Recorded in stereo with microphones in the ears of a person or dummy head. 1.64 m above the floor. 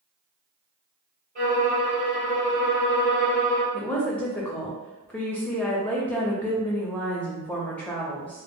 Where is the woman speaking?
10° left (ahead or behind), 0.6 m.